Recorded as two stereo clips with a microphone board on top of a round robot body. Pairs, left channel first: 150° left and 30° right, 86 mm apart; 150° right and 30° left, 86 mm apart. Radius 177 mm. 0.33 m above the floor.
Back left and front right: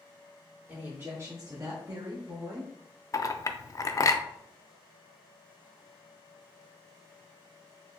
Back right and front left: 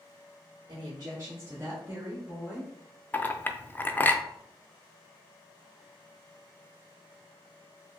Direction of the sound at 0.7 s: 25° left.